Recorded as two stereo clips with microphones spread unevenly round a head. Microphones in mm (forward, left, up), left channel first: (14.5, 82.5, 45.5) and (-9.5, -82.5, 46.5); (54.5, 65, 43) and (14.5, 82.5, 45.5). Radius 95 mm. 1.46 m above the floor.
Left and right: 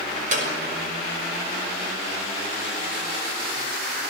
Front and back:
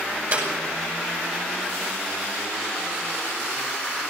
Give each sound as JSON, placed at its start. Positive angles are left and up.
{"t": 0.3, "sound": "a clap", "azimuth_deg": -145, "distance_m": 6.0}